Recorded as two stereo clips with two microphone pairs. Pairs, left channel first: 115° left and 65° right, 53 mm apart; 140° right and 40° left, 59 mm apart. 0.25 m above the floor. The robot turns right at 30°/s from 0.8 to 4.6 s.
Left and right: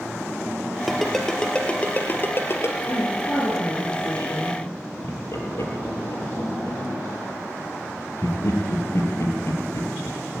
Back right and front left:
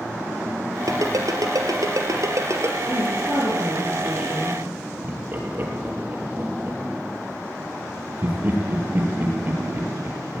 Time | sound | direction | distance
0.9 | a ringtone | 25° left | 2.5 m
2.9 | a woman speaking | 75° left | 5.5 m
5.0 | laughter | 90° left | 5.5 m